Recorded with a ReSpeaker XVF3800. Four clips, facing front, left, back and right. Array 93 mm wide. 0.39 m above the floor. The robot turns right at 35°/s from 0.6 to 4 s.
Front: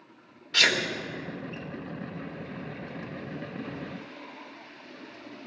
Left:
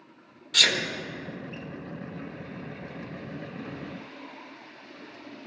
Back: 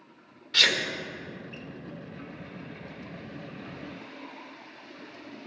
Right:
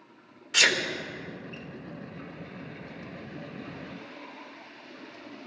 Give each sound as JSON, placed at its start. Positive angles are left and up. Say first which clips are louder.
{"t": 0.5, "sound": "a sneeze", "louder": "right 2 dB, front 1 dB", "azimuth_deg": -75, "distance_m": 0.8}